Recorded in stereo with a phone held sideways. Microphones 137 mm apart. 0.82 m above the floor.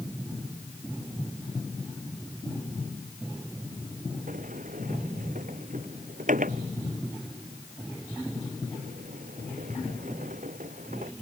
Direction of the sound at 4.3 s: 75° right (ahead or behind).